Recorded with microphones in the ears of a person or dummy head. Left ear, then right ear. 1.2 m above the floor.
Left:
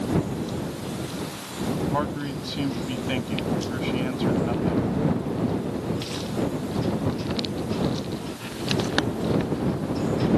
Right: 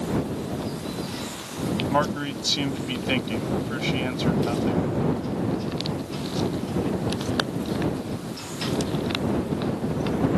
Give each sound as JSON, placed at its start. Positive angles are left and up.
{"t": 1.9, "sound": "a man speaking", "side_deg": -35}